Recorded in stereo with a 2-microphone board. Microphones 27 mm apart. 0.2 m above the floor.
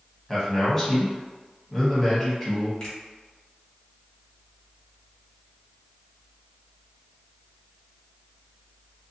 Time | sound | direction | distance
0.3 | a man speaking | 10° left (ahead or behind) | 1.1 m
2.8 | a finger snap | 30° left (ahead or behind) | 2.0 m